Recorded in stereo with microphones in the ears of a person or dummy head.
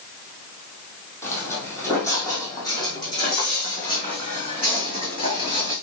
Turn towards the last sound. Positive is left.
turn(degrees=25)  # may be behind; listen again after turning